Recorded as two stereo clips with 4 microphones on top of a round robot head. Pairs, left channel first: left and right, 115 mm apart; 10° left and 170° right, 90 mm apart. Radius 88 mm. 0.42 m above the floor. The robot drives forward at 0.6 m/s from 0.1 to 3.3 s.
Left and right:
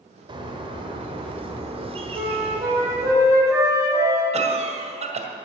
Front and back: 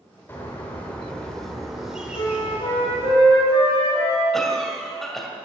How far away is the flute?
About 4.5 m.